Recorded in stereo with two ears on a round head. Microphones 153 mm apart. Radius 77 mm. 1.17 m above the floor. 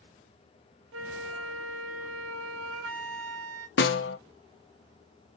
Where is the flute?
80° right, 0.6 m.